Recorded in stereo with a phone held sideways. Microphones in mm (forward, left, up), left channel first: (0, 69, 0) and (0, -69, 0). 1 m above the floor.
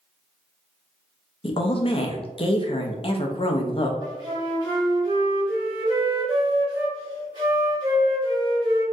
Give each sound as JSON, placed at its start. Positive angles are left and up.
{"t": 1.4, "sound": "a woman speaking", "side_deg": 40, "distance_m": 0.5}
{"t": 4.0, "sound": "a flute", "side_deg": -35, "distance_m": 1.4}